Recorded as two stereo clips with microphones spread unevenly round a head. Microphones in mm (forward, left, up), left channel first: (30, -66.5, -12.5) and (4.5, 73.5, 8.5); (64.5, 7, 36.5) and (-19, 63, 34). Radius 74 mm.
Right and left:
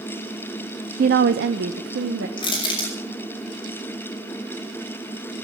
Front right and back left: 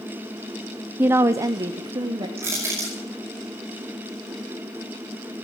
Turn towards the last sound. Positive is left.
turn(degrees=-140)